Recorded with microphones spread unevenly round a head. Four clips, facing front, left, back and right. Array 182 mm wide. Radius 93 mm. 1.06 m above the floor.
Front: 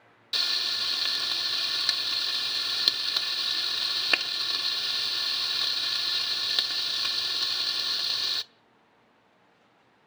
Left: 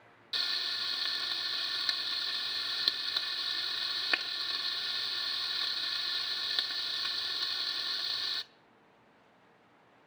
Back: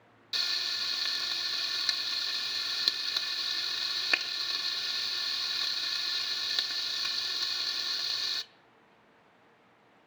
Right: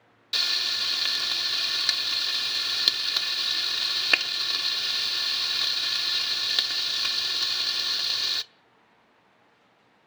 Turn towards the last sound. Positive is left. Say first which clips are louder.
# right 6 dB, front 4 dB
turn(degrees=-60)